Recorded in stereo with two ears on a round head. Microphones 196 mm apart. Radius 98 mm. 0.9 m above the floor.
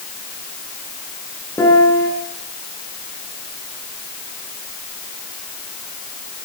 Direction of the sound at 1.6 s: 10° left (ahead or behind).